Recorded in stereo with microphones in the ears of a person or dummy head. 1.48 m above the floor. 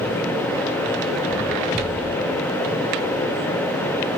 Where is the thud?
Centre (ahead or behind), 3 m.